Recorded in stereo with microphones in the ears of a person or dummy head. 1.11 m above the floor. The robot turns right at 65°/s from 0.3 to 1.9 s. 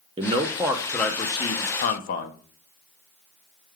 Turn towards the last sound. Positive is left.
turn(degrees=70)